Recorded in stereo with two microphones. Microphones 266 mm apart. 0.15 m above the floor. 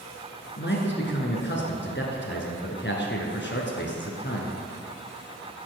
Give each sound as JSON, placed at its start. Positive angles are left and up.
{"t": 0.6, "sound": "a man speaking", "side_deg": 45, "distance_m": 1.9}